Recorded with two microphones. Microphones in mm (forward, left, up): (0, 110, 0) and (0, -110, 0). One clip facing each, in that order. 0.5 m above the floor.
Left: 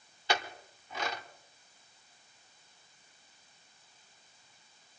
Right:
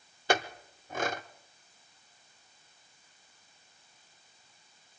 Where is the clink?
50° right (ahead or behind), 0.7 m.